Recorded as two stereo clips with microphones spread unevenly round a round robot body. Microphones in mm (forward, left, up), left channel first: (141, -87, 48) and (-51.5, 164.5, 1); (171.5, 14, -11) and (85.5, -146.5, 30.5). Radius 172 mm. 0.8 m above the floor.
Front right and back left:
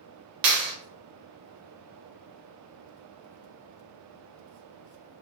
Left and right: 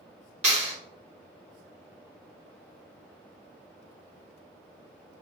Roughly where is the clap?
Behind.